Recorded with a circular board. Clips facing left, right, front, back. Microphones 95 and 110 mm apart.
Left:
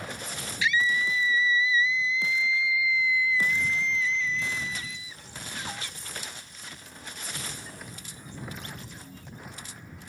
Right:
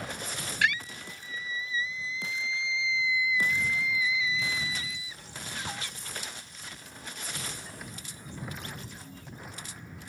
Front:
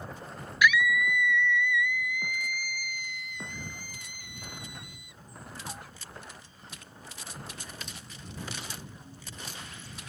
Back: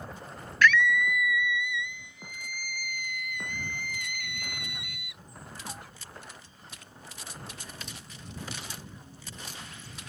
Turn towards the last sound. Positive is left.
turn(degrees=180)